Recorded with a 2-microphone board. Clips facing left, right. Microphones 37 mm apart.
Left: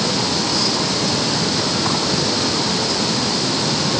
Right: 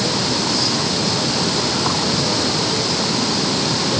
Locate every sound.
Only background noise.